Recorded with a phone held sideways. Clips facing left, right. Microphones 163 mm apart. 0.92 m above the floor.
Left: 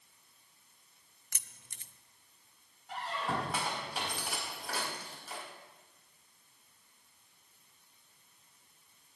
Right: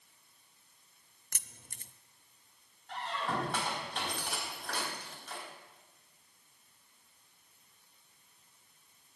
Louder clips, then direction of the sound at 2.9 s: Even; 5° left (ahead or behind).